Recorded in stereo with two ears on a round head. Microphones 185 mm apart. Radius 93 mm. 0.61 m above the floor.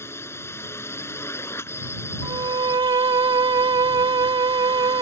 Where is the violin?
20° right (ahead or behind).